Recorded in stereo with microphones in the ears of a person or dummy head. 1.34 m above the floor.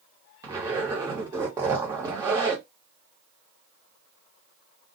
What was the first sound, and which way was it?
A zipper, 25° right (ahead or behind).